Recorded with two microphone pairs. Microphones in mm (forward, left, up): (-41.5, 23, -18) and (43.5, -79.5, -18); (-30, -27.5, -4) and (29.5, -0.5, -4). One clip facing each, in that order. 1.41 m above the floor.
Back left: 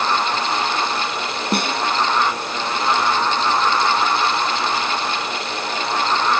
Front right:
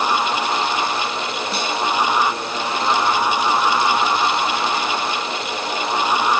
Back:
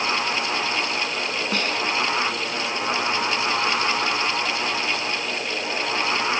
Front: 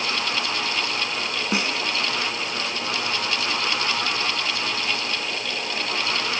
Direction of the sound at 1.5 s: 100° left.